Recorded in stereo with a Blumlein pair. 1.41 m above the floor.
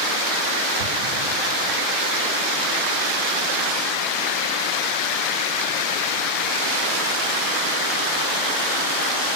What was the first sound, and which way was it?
An explosion, 65° right.